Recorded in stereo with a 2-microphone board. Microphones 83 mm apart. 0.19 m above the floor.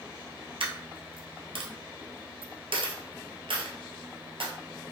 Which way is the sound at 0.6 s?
80° right.